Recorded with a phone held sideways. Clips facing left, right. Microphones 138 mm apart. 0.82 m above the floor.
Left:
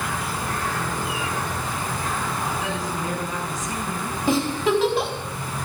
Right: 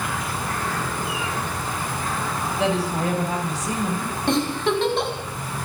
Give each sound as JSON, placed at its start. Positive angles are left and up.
{"t": 2.6, "sound": "a woman speaking", "side_deg": -80, "distance_m": 5.0}
{"t": 4.3, "sound": "a giggle", "side_deg": 5, "distance_m": 4.5}